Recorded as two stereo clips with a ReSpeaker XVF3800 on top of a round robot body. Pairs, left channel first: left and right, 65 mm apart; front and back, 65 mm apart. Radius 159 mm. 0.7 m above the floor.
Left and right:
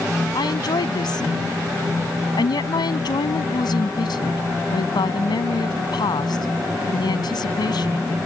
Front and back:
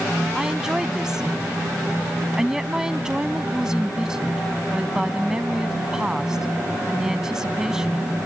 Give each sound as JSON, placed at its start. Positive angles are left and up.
{"t": 0.3, "sound": "a woman speaking", "azimuth_deg": 100}